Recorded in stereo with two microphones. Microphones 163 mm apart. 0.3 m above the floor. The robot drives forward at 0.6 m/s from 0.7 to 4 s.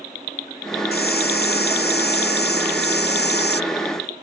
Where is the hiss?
75° left (ahead or behind); by 3.6 s 85° left.